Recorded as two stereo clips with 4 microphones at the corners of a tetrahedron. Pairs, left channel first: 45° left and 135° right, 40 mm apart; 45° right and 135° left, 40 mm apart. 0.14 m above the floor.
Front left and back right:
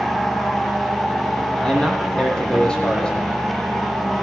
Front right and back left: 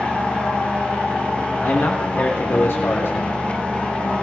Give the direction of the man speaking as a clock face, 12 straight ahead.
1 o'clock.